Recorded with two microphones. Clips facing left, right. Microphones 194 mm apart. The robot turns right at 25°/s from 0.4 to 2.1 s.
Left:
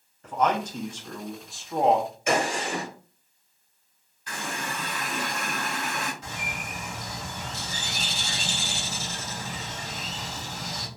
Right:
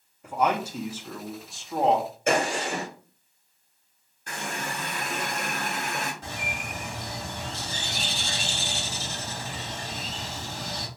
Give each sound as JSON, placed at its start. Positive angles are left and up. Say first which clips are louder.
{"t": 0.2, "sound": "a man speaking", "louder": "even", "side_deg": -10, "distance_m": 0.8}
{"t": 2.3, "sound": "a gunshot", "louder": "right 2 dB", "side_deg": -50, "distance_m": 1.8}
{"t": 4.3, "sound": "a running tap", "louder": "even", "side_deg": -50, "distance_m": 1.4}
{"t": 6.2, "sound": "a bird", "louder": "right 1 dB", "side_deg": -50, "distance_m": 2.0}